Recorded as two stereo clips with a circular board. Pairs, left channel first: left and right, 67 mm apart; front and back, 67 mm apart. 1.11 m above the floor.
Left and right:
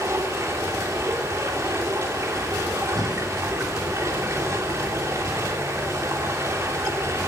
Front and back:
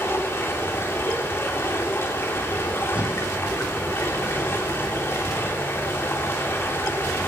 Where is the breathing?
105° right, 7 m.